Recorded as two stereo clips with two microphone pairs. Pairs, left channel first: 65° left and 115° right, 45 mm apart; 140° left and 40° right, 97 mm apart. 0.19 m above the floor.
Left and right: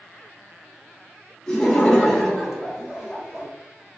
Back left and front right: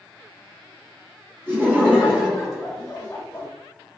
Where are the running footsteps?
No running footsteps in this recording.